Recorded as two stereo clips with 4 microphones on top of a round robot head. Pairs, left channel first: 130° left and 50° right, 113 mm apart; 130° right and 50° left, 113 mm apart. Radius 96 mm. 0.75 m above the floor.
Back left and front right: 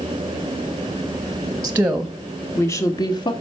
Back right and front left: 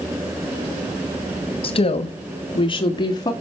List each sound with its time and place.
1.6 s a woman speaking: 115° right, 1.2 m; by 3.3 s 175° left, 1.8 m